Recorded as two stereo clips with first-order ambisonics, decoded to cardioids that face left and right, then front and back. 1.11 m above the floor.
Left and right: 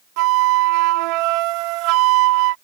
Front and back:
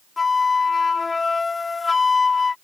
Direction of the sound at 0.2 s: 75° right.